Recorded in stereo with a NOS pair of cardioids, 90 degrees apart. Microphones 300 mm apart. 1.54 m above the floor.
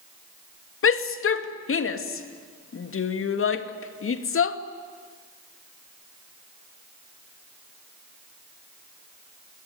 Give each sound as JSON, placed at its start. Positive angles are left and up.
{"t": 0.8, "sound": "a shout", "azimuth_deg": 45, "distance_m": 2.5}